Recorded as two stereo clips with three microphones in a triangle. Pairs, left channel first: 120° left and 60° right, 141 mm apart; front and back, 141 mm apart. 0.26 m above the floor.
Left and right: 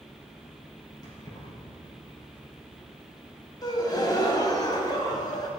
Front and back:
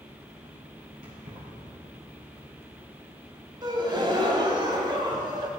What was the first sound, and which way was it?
Keys jangling, straight behind.